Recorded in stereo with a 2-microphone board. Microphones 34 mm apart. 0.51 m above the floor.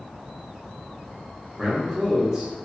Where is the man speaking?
20° right (ahead or behind), 0.7 m.